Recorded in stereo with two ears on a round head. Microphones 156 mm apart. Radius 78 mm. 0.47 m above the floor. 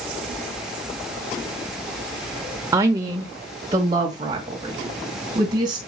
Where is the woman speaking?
15° right (ahead or behind), 1.2 m; by 5.8 s 25° right (ahead or behind), 3.5 m.